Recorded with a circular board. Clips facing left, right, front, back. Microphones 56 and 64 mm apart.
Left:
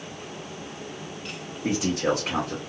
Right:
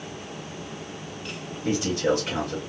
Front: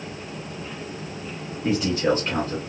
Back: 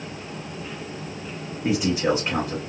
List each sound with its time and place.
1.6 s a man speaking: 105° left, 2.5 m